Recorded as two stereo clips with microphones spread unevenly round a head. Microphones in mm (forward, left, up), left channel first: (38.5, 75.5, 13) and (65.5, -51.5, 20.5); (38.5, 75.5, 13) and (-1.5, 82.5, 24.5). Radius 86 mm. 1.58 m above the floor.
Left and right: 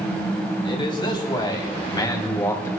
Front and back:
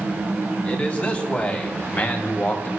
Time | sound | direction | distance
0.6 | a man speaking | 50° left | 3.5 m